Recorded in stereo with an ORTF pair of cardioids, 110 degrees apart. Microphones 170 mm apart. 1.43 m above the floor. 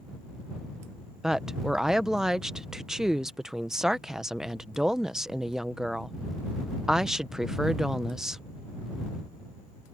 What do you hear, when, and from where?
1.2 s a woman speaking: 5° right